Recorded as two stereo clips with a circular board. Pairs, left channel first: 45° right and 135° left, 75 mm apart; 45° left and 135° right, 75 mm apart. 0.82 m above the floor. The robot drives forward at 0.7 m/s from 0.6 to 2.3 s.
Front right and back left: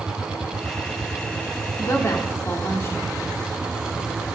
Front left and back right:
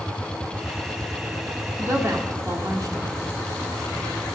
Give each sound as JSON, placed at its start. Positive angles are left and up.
{"t": 1.8, "sound": "a woman speaking", "azimuth_deg": -85, "distance_m": 1.6}